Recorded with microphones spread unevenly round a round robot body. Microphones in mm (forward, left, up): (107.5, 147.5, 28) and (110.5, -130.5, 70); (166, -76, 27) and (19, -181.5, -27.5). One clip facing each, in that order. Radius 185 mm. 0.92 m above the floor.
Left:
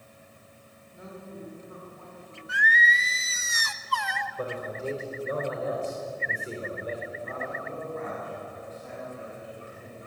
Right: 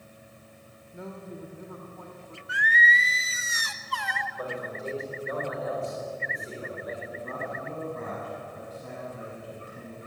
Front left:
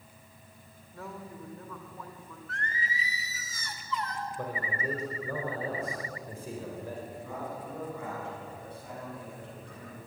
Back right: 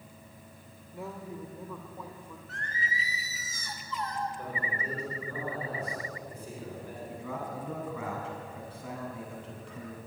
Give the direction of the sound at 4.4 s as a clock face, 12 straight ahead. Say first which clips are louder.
Left 2 dB, front left 2 dB; 11 o'clock.